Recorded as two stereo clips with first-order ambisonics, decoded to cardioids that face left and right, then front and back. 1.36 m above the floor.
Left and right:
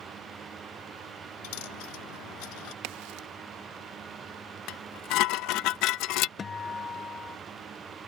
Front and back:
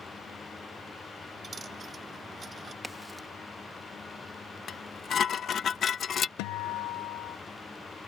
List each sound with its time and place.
1.4 s a dropped coin: 110° left
2.8 s a crack: 90° right
4.7 s dishes clattering: 60° left
6.4 s a guitar: 20° left